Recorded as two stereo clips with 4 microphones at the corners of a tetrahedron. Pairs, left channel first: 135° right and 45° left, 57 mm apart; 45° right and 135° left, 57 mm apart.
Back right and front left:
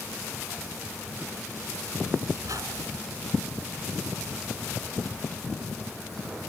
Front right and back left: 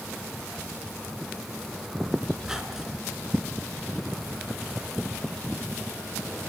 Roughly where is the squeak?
Ahead left.